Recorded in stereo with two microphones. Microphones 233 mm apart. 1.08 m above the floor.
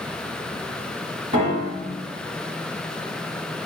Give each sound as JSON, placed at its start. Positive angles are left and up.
{"t": 1.3, "sound": "a piano", "side_deg": -30, "distance_m": 1.4}